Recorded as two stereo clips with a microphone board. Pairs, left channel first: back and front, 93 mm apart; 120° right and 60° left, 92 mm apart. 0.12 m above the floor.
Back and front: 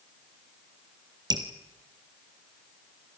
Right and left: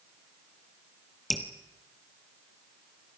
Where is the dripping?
30° right, 2 m.